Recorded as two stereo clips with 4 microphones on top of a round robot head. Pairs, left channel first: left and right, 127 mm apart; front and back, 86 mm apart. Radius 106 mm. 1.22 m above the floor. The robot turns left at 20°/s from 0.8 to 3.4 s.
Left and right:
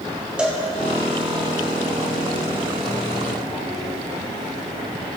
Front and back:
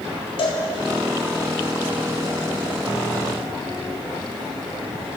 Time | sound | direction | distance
0.4 | a cowbell | 10° right | 1.7 m